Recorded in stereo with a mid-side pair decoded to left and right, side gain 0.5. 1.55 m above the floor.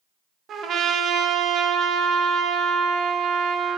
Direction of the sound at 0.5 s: 55° right.